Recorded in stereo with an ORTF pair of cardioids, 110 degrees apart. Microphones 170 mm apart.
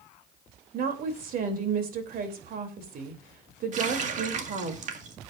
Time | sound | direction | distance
0.7 | a woman speaking | 60° right | 3 m
3.7 | a running tap | 50° right | 1.7 m